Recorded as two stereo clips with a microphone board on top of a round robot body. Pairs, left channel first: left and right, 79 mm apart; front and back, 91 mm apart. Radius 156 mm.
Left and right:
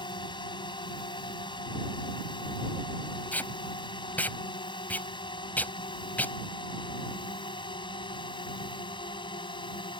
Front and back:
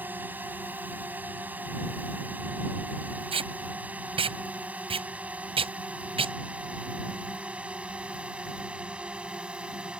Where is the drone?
110° left; by 10.0 s 100° left.